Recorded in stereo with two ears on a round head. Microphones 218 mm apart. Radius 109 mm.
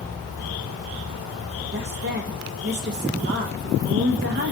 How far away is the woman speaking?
About 0.5 m.